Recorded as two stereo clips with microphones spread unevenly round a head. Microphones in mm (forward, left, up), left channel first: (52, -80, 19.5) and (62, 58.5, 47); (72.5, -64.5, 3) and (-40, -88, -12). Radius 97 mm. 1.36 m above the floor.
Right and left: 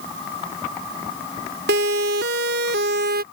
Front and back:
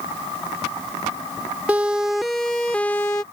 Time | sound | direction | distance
1.7 | a siren | 110° left | ?